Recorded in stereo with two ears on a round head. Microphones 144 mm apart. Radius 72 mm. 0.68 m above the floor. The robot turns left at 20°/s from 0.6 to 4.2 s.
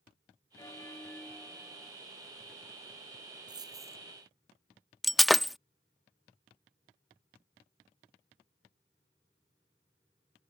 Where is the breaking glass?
Centre (ahead or behind).